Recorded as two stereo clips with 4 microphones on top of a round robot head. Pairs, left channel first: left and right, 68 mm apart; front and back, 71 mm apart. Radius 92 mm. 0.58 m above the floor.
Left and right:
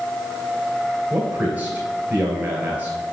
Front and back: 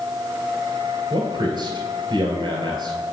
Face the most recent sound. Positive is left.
turn(degrees=-155)